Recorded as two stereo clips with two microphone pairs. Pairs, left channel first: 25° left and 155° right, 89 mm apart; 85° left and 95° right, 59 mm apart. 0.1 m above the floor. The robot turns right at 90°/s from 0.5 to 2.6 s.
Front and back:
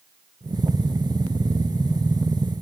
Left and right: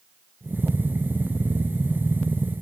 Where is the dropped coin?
No dropped coin in this recording.